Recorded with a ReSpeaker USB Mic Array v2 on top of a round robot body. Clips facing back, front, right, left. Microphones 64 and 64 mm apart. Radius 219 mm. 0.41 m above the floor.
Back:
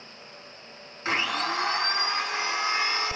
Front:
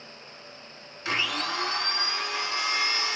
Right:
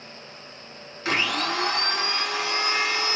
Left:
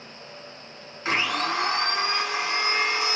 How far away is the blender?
About 1.8 m.